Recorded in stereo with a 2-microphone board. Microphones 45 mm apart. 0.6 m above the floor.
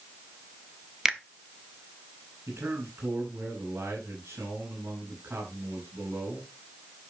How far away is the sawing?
No sawing in this recording.